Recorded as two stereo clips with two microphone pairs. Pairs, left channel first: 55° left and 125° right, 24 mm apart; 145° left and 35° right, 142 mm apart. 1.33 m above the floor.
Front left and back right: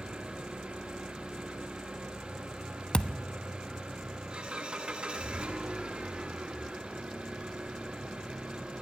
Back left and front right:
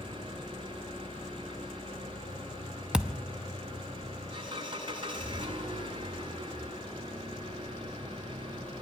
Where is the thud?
50° left, 0.9 m.